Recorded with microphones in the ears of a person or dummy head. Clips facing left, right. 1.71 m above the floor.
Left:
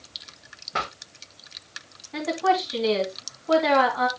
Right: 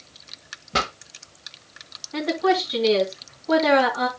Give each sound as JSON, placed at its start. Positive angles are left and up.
{"t": 0.7, "sound": "a pop", "side_deg": -50, "distance_m": 1.3}
{"t": 2.1, "sound": "a woman speaking", "side_deg": 5, "distance_m": 2.5}